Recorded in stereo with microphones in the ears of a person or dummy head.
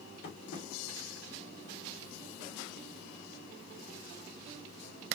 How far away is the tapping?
About 2 m.